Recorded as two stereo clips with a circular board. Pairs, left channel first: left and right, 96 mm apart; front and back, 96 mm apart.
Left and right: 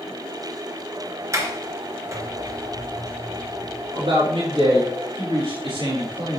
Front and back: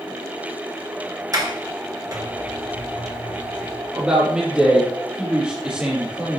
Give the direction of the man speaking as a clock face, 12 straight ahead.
3 o'clock.